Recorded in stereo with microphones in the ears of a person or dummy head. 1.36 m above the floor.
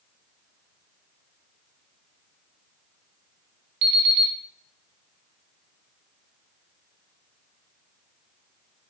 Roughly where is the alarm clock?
Right.